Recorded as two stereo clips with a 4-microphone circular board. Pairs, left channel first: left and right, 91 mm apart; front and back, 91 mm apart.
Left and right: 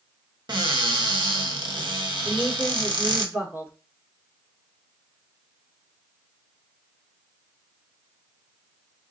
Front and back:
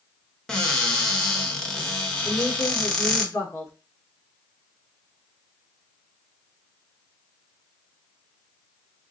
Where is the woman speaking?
30° right, 1.4 m.